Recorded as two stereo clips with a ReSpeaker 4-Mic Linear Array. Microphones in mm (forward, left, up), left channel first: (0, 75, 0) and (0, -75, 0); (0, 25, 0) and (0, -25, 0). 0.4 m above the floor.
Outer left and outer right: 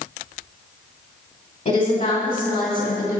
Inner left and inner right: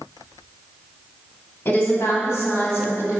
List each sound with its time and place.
1.6 s a woman speaking: 55° left (ahead or behind), 2 m; by 3.2 s 75° left (ahead or behind), 3 m